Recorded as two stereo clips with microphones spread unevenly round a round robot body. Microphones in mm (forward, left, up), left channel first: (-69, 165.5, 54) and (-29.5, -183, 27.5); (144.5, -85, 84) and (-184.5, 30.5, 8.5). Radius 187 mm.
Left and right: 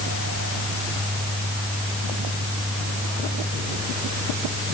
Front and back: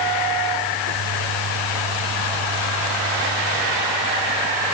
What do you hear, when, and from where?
Only background noise.